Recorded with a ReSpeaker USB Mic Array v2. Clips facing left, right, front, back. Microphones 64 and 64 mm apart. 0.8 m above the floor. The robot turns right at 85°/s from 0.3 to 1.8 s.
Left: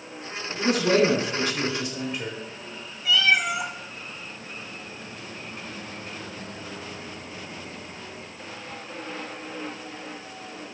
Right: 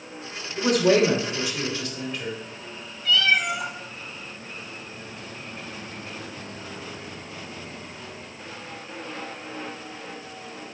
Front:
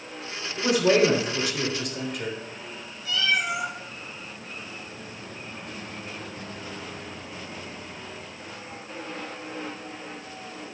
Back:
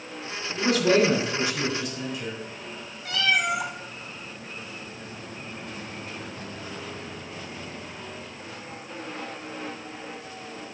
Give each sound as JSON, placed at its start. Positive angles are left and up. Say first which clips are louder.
{"t": 0.6, "sound": "a man speaking", "louder": "right 2 dB, front 1 dB", "azimuth_deg": -85, "distance_m": 3.0}
{"t": 3.0, "sound": "a cat meowing", "louder": "even, back 1 dB", "azimuth_deg": 170, "distance_m": 1.3}